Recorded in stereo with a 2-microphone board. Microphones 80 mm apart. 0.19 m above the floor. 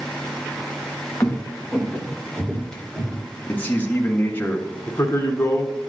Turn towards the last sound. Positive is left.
turn(degrees=35)  # may be behind; listen again after turning